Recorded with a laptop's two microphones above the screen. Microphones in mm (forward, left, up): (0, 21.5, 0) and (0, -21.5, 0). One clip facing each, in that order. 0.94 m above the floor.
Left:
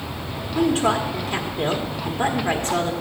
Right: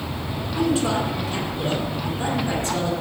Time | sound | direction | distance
0.6 | a woman speaking | 55° left (ahead or behind) | 1.8 m